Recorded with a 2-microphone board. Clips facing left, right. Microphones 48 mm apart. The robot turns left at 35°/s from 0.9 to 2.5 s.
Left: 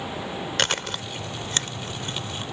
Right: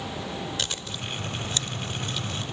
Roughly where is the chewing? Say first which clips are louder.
Left 7 dB; left.